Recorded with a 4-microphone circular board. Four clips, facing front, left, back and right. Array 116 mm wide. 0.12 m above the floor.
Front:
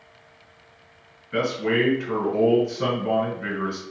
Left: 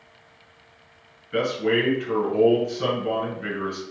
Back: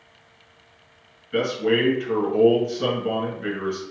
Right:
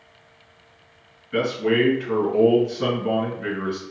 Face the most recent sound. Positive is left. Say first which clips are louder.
# right 2 dB, back 1 dB
turn(degrees=10)